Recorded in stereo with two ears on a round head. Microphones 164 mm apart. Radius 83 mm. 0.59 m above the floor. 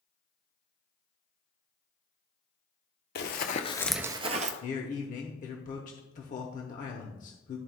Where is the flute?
I don't hear a flute.